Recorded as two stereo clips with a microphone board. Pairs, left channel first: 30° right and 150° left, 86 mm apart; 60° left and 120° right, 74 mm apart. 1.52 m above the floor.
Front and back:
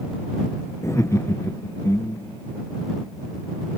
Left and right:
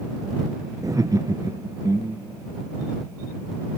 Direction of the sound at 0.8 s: 85° right.